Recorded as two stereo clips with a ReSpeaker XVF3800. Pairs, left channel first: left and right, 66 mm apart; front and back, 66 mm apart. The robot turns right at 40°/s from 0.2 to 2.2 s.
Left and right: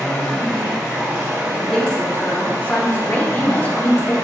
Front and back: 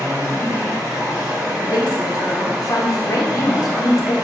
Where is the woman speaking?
Straight ahead, 0.7 m; by 4.1 s 25° left, 0.7 m.